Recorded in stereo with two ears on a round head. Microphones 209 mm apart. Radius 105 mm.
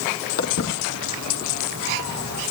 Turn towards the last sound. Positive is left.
turn(degrees=65)  # may be behind; listen again after turning